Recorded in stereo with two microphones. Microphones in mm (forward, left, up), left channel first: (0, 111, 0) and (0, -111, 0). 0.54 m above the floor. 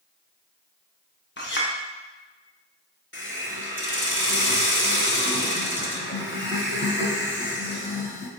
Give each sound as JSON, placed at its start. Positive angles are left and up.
{"t": 1.4, "sound": "a clink", "side_deg": 55, "distance_m": 0.6}
{"t": 3.1, "sound": "a hiss", "side_deg": 55, "distance_m": 0.7}